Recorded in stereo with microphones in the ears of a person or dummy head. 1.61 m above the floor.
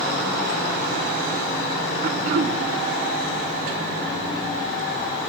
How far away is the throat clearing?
About 0.6 m.